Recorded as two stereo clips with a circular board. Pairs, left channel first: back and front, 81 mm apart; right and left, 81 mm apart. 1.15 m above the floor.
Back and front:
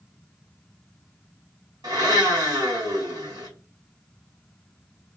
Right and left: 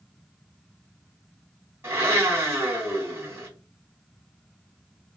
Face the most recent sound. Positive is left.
turn(degrees=35)